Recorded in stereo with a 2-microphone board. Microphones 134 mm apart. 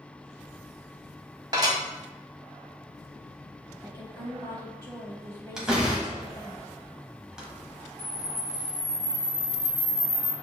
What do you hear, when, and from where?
1.5 s dishes clattering: 30° right (ahead or behind), 1.0 m
3.8 s a woman speaking: 20° left (ahead or behind), 1.0 m
5.6 s a door slam: 5° right (ahead or behind), 1.0 m
8.0 s a camera shutter: 50° right (ahead or behind), 1.2 m